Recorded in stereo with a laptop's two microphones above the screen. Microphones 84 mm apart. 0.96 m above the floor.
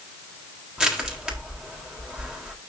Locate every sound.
0.8 s crushing: 10° right (ahead or behind), 3.5 m